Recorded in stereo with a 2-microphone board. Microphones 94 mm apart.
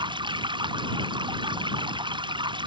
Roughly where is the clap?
I don't hear a clap.